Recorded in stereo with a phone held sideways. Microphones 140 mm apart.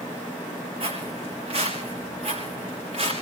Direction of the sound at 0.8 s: 40° right (ahead or behind).